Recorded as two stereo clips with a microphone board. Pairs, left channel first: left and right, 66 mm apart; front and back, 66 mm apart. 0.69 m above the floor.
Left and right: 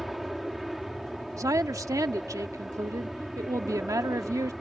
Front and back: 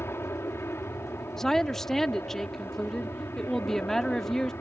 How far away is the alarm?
No alarm in this recording.